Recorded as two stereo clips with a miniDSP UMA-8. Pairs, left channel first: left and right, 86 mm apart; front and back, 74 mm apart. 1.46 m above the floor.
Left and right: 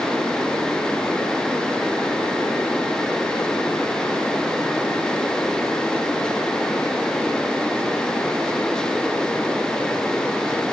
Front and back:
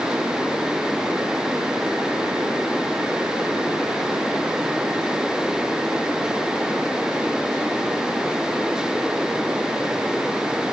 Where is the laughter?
I don't hear laughter.